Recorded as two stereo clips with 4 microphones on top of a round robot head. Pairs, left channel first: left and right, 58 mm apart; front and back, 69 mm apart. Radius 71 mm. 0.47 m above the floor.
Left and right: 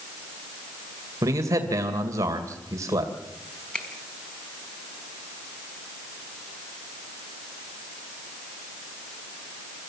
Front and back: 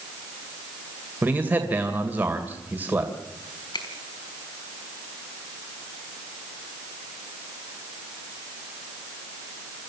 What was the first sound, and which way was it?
A man speaking, 115° right.